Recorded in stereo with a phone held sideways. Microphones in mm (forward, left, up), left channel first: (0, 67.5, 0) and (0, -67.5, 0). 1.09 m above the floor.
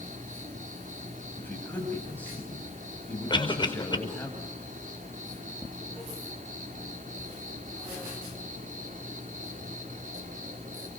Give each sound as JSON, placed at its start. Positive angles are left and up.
{"t": 0.0, "sound": "an insect", "side_deg": -70, "distance_m": 4.5}
{"t": 1.4, "sound": "a man speaking", "side_deg": 10, "distance_m": 6.5}
{"t": 3.3, "sound": "a cough", "side_deg": 35, "distance_m": 5.0}